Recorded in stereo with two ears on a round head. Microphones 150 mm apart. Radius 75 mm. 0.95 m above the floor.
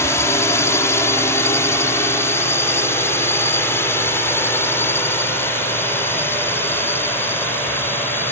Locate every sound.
0.0 s a drone: 20° left (ahead or behind); by 8.3 s 15° left (ahead or behind)